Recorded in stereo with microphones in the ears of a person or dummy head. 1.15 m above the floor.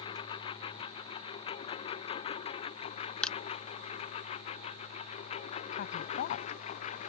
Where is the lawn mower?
30° left (ahead or behind); by 7.1 s 40° left (ahead or behind).